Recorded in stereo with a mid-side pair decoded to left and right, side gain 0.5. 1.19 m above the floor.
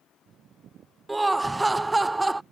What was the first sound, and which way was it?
Laughter, 15° right.